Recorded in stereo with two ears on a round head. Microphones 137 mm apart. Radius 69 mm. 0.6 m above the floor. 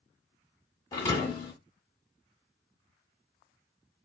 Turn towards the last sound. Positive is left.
turn(degrees=25)  # may be behind; listen again after turning